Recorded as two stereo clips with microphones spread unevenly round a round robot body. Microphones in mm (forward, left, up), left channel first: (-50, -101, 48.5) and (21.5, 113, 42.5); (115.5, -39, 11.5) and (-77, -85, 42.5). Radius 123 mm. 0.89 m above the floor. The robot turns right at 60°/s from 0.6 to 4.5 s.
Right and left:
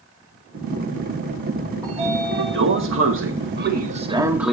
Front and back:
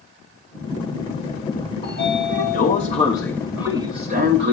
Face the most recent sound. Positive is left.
turn(degrees=160)